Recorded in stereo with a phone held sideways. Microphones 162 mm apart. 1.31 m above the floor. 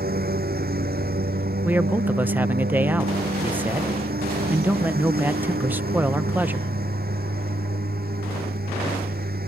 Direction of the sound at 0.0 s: 65° right (ahead or behind).